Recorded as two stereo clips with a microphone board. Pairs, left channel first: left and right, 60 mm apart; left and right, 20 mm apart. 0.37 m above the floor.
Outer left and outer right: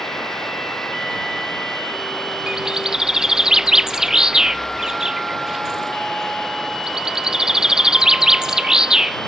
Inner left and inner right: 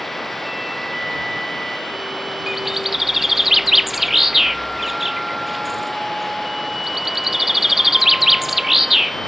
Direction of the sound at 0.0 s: 5° left (ahead or behind).